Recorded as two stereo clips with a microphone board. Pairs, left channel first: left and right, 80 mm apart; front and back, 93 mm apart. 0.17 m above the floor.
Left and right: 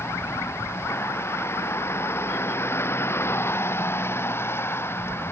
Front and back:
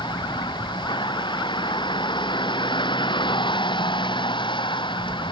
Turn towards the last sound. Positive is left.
turn(degrees=30)